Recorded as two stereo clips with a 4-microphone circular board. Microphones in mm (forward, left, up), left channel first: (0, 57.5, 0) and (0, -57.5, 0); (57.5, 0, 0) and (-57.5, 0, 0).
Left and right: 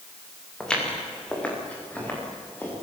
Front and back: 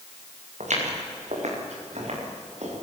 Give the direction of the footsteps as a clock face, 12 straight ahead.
6 o'clock.